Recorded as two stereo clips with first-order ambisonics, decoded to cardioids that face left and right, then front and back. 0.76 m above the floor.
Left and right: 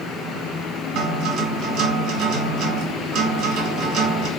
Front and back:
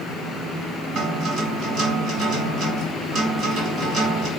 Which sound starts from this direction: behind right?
A guitar, at 0.9 s.